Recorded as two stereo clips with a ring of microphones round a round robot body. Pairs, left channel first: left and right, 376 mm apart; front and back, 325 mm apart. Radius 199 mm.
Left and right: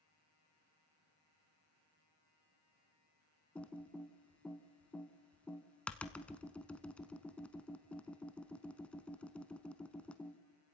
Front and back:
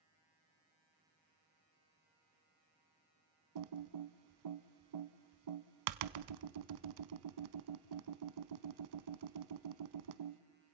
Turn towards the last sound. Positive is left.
turn(degrees=175)